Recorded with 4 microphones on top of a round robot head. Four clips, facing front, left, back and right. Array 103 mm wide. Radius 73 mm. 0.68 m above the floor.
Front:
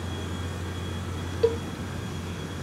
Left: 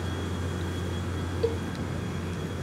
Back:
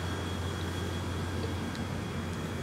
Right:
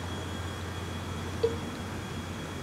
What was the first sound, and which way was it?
A vehicle, 75° left.